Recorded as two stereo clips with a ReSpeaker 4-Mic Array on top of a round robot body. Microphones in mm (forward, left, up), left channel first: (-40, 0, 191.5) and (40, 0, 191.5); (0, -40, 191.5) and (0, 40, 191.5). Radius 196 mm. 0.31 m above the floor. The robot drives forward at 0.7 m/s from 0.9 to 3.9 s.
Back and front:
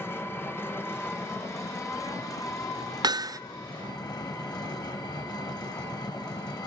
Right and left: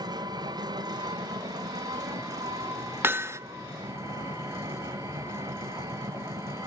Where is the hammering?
30° left, 0.9 m; by 3.4 s 40° left, 0.7 m.